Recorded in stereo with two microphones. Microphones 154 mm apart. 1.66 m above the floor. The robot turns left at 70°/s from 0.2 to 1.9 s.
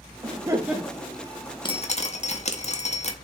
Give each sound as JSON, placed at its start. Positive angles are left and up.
{"t": 0.2, "sound": "laughter", "azimuth_deg": -140, "distance_m": 0.6}
{"t": 1.6, "sound": "dripping", "side_deg": 30, "distance_m": 0.7}